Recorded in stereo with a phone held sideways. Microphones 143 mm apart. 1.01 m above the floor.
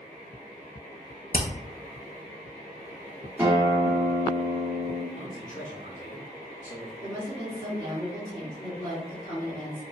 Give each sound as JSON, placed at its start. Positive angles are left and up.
{"t": 1.3, "sound": "hammering", "side_deg": 65, "distance_m": 0.6}
{"t": 3.4, "sound": "a guitar", "side_deg": -10, "distance_m": 1.8}
{"t": 5.1, "sound": "a man speaking", "side_deg": 60, "distance_m": 1.0}
{"t": 7.0, "sound": "a woman speaking", "side_deg": 60, "distance_m": 1.8}